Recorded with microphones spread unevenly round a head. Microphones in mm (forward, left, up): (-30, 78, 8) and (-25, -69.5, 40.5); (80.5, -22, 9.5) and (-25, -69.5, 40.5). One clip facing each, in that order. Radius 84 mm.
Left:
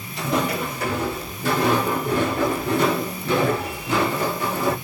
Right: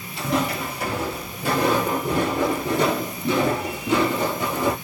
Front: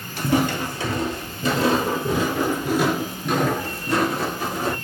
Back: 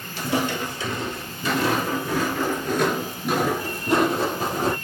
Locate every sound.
0.2 s footsteps: 15° right, 1.7 m; by 4.8 s 145° right, 1.5 m